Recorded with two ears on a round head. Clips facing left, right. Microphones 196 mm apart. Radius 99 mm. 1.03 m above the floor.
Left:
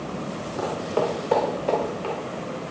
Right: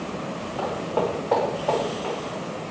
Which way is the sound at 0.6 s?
30° left (ahead or behind).